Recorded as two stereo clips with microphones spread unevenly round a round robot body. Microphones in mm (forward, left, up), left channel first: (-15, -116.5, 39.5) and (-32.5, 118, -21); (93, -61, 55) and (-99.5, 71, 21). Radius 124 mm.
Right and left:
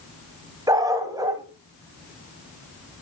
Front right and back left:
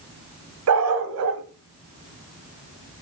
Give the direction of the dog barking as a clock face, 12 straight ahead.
6 o'clock.